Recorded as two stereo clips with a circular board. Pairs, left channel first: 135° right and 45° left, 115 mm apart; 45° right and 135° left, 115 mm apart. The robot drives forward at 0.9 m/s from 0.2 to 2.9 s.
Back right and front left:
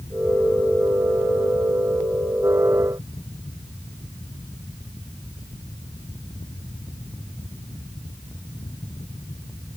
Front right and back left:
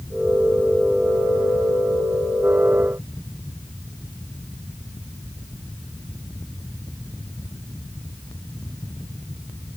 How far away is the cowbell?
No cowbell in this recording.